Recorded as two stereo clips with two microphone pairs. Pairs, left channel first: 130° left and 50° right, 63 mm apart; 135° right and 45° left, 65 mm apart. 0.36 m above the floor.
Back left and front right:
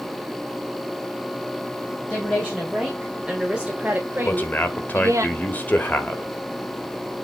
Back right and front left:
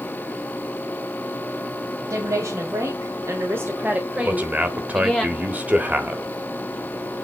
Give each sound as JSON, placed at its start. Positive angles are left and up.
{"t": 2.1, "sound": "a woman speaking", "azimuth_deg": 60, "distance_m": 2.5}
{"t": 4.2, "sound": "a man speaking", "azimuth_deg": 95, "distance_m": 1.3}